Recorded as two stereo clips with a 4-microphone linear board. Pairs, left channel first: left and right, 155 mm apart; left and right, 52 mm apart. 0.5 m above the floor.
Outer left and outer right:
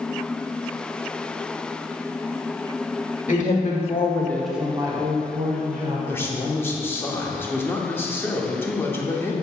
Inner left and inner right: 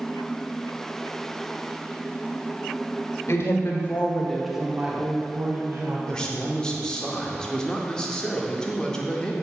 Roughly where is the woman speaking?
Left.